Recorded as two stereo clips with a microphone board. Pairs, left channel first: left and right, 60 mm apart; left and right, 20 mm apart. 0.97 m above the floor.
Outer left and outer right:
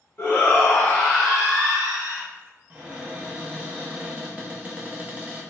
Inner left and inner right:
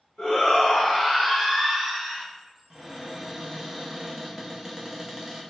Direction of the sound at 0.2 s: 35° left (ahead or behind).